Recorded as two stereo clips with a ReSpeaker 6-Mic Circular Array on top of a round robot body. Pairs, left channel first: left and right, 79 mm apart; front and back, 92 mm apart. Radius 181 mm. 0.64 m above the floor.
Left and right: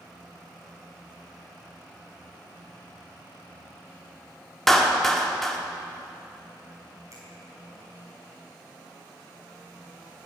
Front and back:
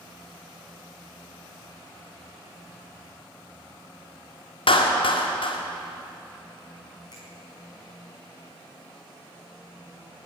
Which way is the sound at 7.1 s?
40° right.